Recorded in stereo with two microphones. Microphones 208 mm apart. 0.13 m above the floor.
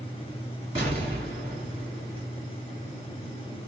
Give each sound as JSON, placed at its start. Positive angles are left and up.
{"t": 0.8, "sound": "an explosion", "side_deg": -25, "distance_m": 1.7}